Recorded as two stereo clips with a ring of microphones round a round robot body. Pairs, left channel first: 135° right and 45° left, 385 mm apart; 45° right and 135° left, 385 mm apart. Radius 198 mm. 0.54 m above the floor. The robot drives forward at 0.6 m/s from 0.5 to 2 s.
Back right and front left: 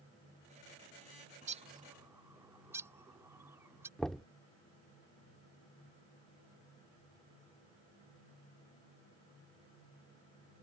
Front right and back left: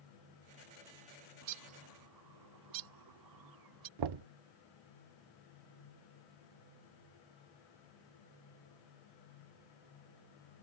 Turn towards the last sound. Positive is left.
turn(degrees=135)